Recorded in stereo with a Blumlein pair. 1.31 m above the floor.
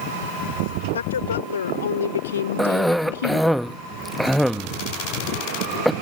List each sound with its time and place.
0.9 s a woman speaking: 70° left; by 3.6 s 55° left
2.6 s a cough: straight ahead